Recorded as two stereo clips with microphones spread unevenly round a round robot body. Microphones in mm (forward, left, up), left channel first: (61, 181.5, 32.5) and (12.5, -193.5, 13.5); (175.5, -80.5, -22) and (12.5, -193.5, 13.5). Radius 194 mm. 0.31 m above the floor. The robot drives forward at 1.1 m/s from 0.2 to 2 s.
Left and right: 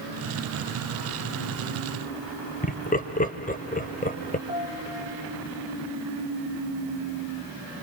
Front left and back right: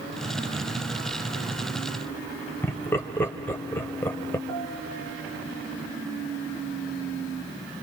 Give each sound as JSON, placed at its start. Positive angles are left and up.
{"t": 2.6, "sound": "laughter", "azimuth_deg": 45, "distance_m": 0.9}
{"t": 4.5, "sound": "a piano", "azimuth_deg": -170, "distance_m": 3.0}